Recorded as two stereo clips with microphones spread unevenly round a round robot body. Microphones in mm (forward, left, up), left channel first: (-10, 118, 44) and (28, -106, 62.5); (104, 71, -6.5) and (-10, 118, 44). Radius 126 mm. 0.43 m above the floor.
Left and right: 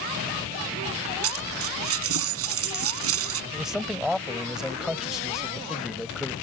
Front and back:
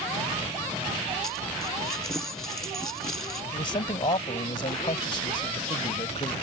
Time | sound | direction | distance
1.2 | a dropped coin | 105° right | ?
3.5 | a man speaking | 10° left | ?